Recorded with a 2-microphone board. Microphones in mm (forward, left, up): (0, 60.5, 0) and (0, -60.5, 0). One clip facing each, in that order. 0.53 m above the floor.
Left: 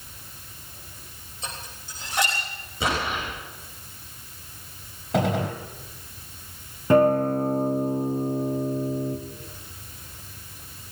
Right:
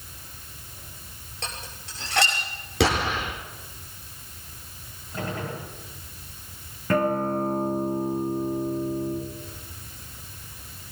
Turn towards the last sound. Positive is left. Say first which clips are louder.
# left 5 dB
turn(degrees=20)  # may be behind; listen again after turning